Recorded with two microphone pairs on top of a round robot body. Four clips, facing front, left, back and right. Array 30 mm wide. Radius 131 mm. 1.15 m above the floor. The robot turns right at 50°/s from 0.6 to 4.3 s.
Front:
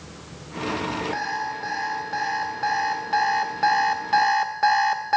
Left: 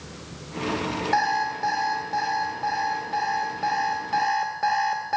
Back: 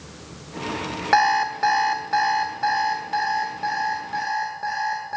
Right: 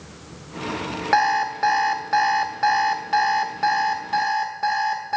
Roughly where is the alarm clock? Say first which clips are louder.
Right 5 dB, back 9 dB; behind right.